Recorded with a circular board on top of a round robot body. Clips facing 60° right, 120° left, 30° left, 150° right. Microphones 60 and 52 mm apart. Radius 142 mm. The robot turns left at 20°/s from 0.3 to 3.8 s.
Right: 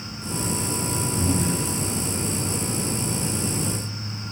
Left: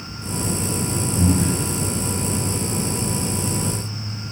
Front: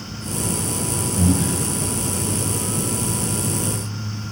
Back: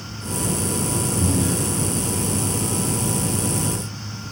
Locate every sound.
1.2 s breathing: 75° left, 0.6 m; by 1.6 s 65° left, 0.6 m